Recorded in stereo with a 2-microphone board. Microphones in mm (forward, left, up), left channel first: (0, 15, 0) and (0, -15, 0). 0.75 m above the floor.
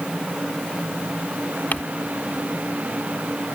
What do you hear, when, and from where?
1.7 s crumpling: 60° left (ahead or behind)